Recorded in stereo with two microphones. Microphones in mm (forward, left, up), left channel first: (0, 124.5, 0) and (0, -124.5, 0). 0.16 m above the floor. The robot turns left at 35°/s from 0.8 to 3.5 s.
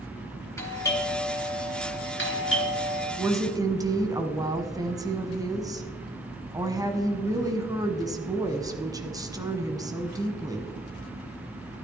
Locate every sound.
0.6 s a doorbell: 165° left, 3 m; by 3.1 s 85° left, 3 m
3.2 s a woman speaking: 10° right (ahead or behind), 1.3 m; by 10.7 s 15° right (ahead or behind), 1.3 m